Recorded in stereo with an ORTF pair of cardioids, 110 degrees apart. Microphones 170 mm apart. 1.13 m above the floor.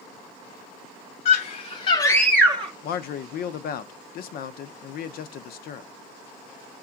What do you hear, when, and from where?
1.2 s a scream: 60° left, 1.0 m; by 2.7 s 35° right, 0.6 m
2.8 s a man speaking: 65° left, 0.7 m